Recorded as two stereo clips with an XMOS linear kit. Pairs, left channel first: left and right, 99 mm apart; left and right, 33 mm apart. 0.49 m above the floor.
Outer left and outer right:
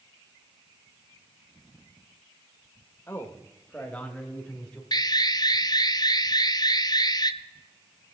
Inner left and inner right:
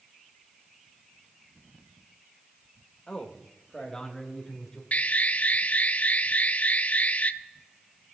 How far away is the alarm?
About 0.6 m.